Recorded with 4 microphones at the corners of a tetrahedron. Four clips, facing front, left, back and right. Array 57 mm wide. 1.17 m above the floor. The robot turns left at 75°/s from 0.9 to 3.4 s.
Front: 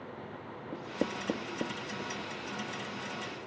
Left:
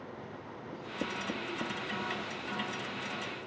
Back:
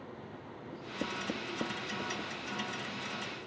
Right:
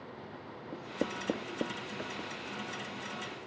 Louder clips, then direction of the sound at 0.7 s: Right 1 dB, front 4 dB; 30° right.